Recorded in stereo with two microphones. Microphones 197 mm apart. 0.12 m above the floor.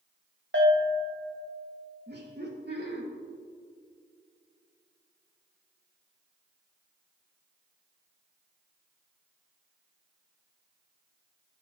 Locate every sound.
0.5 s a bell: 65° right (ahead or behind), 2.5 m
2.1 s laughter: 55° right (ahead or behind), 2.5 m